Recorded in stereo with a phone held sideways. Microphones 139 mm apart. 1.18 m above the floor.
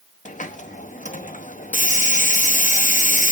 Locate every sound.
0.2 s a hiss: 65° left (ahead or behind), 0.9 m